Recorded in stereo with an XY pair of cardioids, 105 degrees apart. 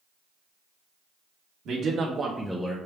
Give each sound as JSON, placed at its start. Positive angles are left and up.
{"t": 1.6, "sound": "a man speaking", "azimuth_deg": -65, "distance_m": 0.9}